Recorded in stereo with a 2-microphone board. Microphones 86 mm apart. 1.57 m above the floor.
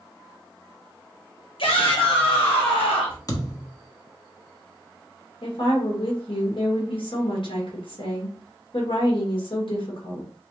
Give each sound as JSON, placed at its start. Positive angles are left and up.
{"t": 1.6, "sound": "a shout", "side_deg": 75, "distance_m": 1.8}
{"t": 3.3, "sound": "a thud", "side_deg": 40, "distance_m": 1.2}
{"t": 5.4, "sound": "a woman speaking", "side_deg": 65, "distance_m": 1.9}